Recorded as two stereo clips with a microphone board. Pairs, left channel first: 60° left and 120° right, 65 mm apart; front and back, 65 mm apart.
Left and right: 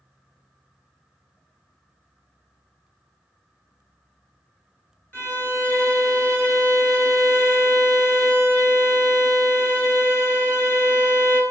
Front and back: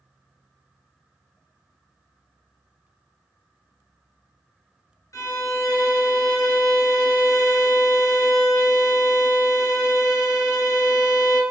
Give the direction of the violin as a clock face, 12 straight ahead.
12 o'clock.